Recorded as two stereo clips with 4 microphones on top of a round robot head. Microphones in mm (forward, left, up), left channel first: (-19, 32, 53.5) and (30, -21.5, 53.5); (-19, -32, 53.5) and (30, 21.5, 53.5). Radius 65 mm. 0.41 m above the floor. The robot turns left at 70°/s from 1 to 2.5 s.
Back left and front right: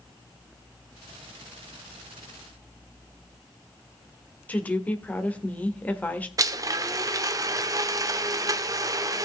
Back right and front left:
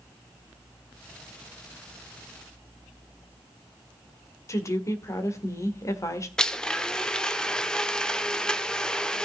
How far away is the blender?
About 1.0 m.